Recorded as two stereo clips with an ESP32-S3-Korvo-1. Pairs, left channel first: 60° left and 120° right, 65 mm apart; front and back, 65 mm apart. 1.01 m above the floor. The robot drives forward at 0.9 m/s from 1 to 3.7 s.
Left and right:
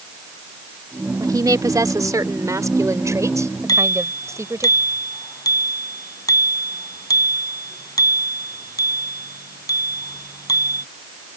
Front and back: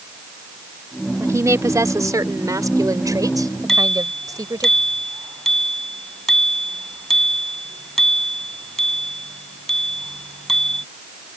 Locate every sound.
1.2 s a woman speaking: 140° right; by 4.7 s 160° right
3.7 s a bicycle bell: 85° left